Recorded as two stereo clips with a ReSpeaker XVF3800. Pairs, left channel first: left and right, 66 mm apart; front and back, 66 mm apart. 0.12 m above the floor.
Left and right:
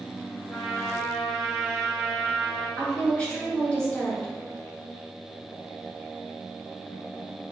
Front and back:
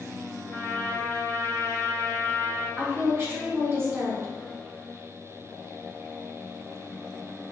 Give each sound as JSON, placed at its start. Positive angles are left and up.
{"t": 0.5, "sound": "a trumpet", "azimuth_deg": 25, "distance_m": 1.5}
{"t": 2.8, "sound": "a woman speaking", "azimuth_deg": 155, "distance_m": 1.6}